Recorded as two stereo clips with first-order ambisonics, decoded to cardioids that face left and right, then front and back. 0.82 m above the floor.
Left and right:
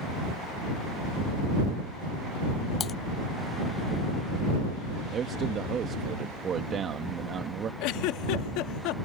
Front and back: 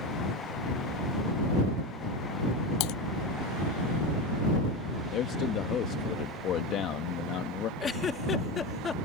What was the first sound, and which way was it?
Typing on a keyboard, 25° left.